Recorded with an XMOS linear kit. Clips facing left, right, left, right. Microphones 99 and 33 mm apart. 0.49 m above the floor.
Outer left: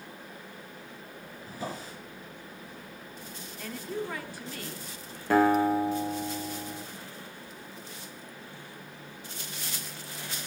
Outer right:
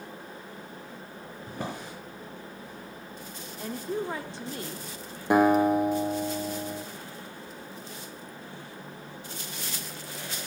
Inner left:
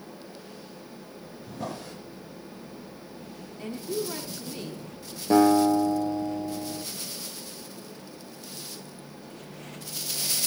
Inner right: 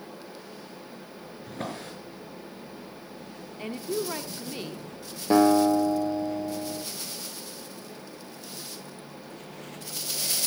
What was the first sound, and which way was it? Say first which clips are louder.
A drawer: outer right 1 dB, even; 60° right (ahead or behind).